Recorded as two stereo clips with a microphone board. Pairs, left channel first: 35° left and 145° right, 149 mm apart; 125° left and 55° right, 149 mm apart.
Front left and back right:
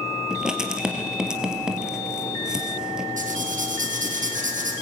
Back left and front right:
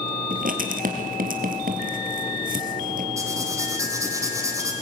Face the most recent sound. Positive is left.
turn(degrees=-125)